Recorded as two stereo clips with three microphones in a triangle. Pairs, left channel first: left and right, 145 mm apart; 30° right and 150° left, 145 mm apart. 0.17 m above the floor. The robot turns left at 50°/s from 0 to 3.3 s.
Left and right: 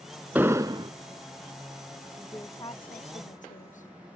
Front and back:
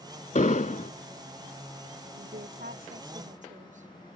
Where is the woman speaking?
175° left; by 3.9 s 120° left.